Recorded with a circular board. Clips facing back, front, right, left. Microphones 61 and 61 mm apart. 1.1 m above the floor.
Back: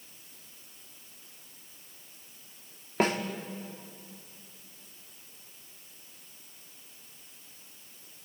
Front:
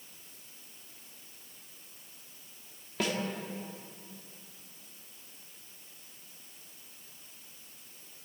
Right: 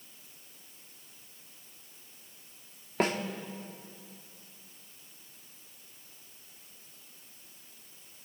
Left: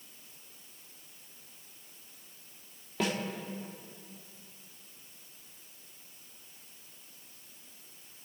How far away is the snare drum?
About 2 m.